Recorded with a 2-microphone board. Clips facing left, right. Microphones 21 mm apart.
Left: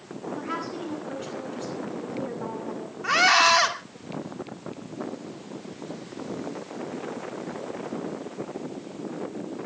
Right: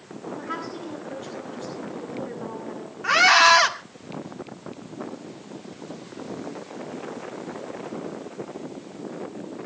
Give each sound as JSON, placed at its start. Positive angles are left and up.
{"t": 0.4, "sound": "a woman speaking", "side_deg": 35, "distance_m": 8.0}
{"t": 3.0, "sound": "a scream", "side_deg": -5, "distance_m": 1.8}